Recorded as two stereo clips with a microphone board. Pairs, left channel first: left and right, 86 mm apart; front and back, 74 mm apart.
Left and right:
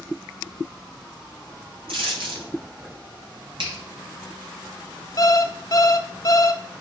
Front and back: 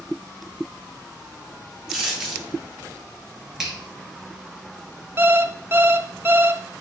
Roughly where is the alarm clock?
Behind left.